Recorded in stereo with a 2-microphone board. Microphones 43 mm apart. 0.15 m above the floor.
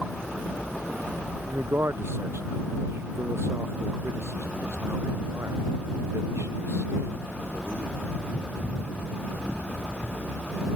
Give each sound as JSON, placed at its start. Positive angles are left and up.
{"t": 1.5, "sound": "a man speaking", "side_deg": -65}